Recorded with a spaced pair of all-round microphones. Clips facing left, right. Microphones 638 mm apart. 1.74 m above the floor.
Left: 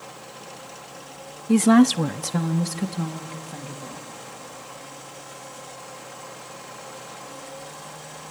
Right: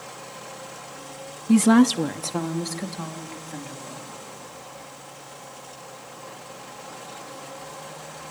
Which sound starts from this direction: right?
A woman speaking, at 1.5 s.